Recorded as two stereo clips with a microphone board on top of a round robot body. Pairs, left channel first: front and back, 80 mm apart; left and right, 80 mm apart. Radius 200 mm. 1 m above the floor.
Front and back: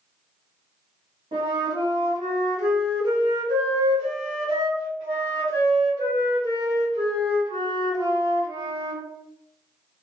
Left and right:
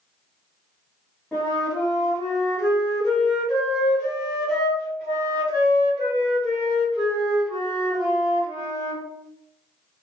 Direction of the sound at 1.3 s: 170° left.